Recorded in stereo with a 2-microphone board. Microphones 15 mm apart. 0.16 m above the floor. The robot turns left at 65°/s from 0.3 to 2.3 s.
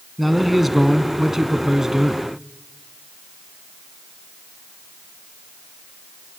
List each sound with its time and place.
0.2 s a man speaking: straight ahead, 1.4 m; by 2.2 s 125° right, 1.4 m